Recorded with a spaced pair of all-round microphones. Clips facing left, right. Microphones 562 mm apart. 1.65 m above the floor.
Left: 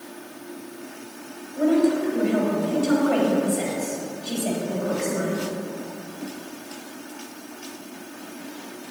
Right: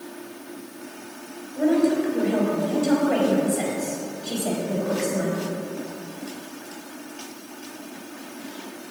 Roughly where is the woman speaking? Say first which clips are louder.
Even; left.